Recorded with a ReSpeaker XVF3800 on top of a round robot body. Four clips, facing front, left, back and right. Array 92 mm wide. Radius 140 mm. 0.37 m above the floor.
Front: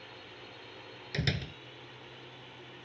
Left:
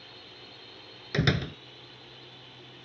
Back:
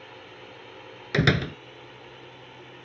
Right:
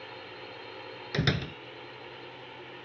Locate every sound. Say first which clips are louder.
0.0 s a drone: right 7 dB, back 5 dB; 120° right
1.1 s a door slam: left 3 dB, back 13 dB; 175° left